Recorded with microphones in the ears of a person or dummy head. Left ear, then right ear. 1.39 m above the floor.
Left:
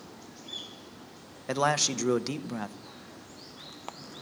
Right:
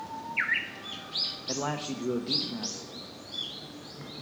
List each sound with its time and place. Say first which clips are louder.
1.5 s a man speaking: left 6 dB; 70° left (ahead or behind), 0.8 m